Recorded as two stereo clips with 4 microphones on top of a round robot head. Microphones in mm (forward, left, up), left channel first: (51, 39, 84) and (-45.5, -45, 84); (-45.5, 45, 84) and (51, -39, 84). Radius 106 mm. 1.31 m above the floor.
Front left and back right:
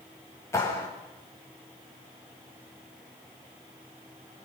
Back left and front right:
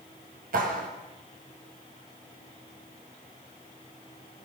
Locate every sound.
0.5 s a clap: 30° right, 6.5 m